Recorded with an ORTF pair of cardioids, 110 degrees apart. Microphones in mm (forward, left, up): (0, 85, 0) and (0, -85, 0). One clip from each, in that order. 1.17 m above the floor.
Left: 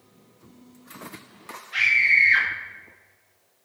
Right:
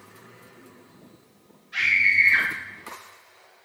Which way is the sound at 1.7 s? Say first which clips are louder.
Left 1 dB; 20° left.